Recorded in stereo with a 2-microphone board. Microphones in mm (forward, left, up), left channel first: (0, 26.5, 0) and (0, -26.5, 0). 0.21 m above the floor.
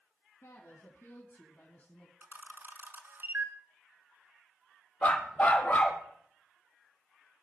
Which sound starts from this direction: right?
A camera shutter, at 2.2 s.